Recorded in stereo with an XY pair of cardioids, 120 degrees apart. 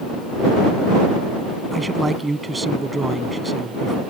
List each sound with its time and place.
1.7 s a man speaking: 15° right